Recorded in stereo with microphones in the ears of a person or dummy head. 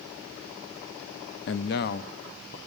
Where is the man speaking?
55° left (ahead or behind), 0.5 m; by 2.6 s 40° left (ahead or behind), 1.5 m.